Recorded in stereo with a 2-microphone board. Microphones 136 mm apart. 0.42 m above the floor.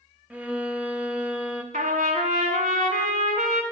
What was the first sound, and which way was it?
A violin, 10° right (ahead or behind).